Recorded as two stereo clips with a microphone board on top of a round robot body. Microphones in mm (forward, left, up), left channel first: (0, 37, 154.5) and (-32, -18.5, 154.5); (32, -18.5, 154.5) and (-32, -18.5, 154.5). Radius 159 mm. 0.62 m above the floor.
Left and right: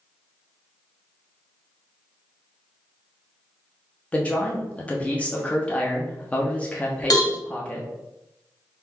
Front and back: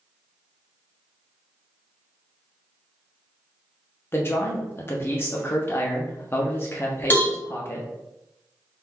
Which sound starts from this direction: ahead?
A man speaking, at 4.1 s.